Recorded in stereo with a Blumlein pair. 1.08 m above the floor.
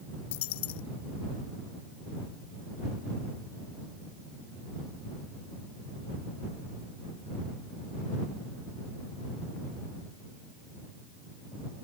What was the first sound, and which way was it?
A dropped coin, 50° left.